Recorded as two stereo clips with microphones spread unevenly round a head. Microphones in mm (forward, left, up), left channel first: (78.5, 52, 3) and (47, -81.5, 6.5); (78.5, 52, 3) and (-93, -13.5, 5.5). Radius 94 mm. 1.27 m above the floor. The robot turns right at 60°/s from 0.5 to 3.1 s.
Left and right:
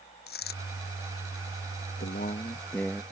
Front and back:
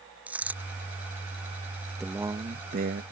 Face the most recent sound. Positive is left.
turn(degrees=180)